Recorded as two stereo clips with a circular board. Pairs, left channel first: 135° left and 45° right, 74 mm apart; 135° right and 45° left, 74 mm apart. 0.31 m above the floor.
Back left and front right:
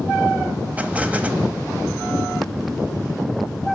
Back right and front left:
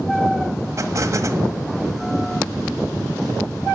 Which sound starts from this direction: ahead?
An explosion, at 0.8 s.